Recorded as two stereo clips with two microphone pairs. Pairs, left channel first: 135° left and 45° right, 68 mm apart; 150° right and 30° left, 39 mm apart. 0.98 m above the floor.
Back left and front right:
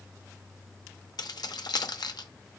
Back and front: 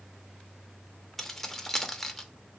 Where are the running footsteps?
No running footsteps in this recording.